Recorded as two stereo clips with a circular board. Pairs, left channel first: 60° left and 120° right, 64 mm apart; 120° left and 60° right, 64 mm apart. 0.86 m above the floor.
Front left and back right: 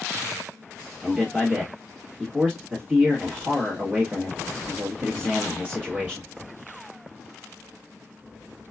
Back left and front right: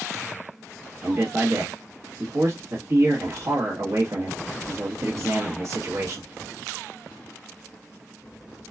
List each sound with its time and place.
1.0 s a man speaking: 55° right, 1.2 m